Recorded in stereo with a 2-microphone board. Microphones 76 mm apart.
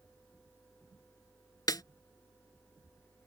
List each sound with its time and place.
1.7 s a snare drum: 60° left (ahead or behind)